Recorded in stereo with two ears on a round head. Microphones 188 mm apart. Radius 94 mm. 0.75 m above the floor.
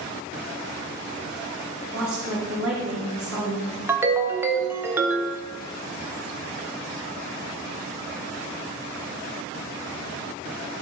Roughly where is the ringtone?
Centre.